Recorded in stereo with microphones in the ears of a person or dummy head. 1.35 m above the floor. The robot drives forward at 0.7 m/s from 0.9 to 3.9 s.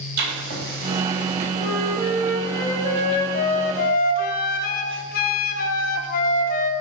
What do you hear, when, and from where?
0.2 s writing: 55° right (ahead or behind), 3 m; by 1.5 s 60° right (ahead or behind), 3 m
1.6 s a flute: 15° left (ahead or behind), 2 m; by 6.7 s 50° left (ahead or behind), 0.7 m